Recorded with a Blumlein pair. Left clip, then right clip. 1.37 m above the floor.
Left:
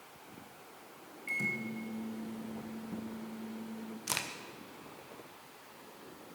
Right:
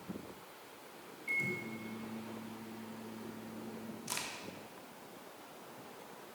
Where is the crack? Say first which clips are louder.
Left 5 dB; 50° left, 0.9 m.